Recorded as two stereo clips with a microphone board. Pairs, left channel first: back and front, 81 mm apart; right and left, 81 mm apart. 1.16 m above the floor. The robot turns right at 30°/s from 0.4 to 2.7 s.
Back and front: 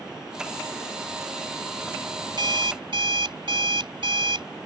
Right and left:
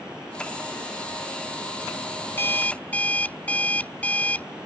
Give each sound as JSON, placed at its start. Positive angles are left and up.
{"t": 2.3, "sound": "an alarm clock", "azimuth_deg": -30}